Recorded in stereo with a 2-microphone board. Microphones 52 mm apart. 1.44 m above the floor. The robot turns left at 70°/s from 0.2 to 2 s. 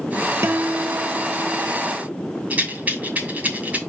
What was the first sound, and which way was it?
A guitar, 90° right.